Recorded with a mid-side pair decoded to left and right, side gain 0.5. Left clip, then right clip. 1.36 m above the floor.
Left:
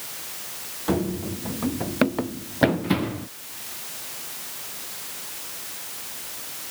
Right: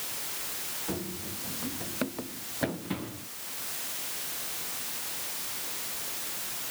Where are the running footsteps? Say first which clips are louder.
Left 10 dB; 60° left.